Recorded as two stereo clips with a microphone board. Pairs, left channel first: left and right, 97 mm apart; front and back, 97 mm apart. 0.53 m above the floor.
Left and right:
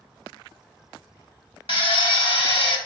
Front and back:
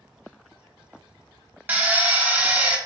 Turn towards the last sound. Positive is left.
turn(degrees=110)